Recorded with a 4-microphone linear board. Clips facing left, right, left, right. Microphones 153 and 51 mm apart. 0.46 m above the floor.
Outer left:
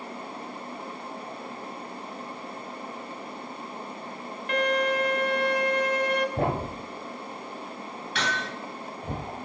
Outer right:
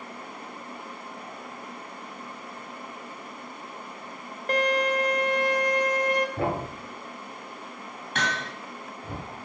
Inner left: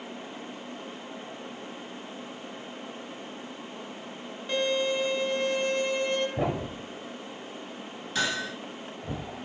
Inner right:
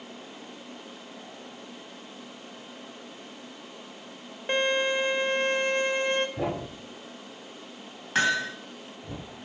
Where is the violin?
45° right (ahead or behind), 1.3 m.